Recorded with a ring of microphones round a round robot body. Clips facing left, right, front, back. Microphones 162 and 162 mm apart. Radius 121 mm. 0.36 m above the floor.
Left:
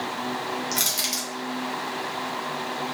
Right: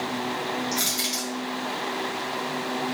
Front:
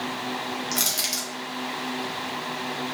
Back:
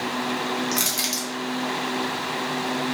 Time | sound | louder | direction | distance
0.7 | crushing | right 2 dB, back 4 dB | 95° left | 1.8 m